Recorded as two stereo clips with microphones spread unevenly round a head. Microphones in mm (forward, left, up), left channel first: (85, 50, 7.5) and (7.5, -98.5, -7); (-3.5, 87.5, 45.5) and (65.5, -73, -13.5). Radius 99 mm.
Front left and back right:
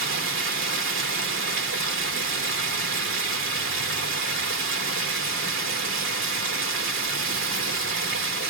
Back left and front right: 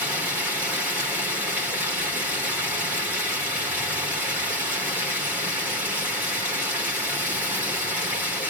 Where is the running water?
150° right, 2 m.